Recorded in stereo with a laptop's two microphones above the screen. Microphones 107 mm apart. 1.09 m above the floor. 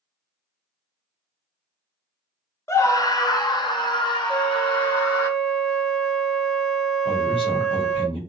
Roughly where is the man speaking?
Left.